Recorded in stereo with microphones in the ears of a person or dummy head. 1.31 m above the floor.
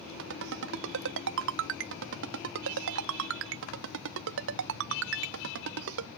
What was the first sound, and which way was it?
A ringtone, 60° right (ahead or behind).